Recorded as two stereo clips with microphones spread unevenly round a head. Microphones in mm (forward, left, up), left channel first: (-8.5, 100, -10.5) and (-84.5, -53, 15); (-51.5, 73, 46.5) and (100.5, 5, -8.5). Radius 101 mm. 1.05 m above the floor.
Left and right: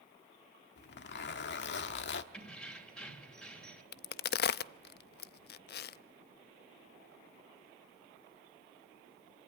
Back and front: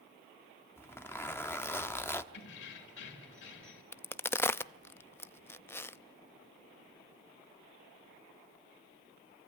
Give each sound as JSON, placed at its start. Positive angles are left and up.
{"t": 0.8, "sound": "a zipper", "azimuth_deg": 85, "distance_m": 1.2}
{"t": 2.3, "sound": "keys jangling", "azimuth_deg": 150, "distance_m": 3.0}
{"t": 3.9, "sound": "a crack", "azimuth_deg": 90, "distance_m": 0.5}